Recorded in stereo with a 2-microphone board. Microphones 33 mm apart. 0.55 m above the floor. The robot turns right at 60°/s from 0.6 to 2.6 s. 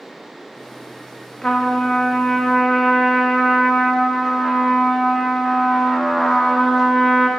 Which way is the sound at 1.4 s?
20° left (ahead or behind).